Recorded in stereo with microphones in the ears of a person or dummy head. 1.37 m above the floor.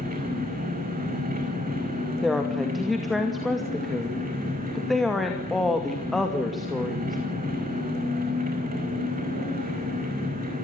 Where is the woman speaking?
Centre (ahead or behind), 2.5 m.